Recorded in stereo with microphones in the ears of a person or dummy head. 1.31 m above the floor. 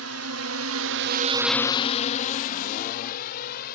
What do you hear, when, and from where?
0.0 s a drone: 85° right; by 3.8 s 65° left (ahead or behind)